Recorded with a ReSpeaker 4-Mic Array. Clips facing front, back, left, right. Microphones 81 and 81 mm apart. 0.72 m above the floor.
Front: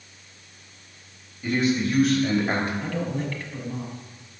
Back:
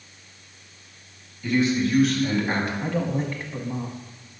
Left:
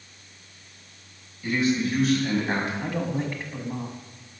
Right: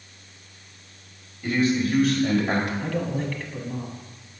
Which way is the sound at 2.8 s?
135° left.